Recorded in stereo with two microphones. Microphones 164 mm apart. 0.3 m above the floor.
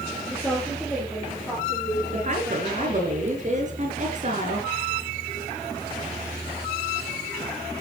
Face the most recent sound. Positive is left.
turn(degrees=-50)  # may be behind; listen again after turning